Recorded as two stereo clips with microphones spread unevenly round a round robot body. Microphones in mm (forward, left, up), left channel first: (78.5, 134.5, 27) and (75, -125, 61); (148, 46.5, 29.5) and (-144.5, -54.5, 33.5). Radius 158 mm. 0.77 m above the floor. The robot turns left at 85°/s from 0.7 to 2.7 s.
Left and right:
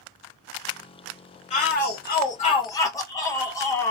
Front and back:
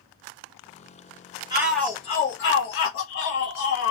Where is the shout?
130° left, 0.6 m; by 3.9 s 25° left, 0.6 m.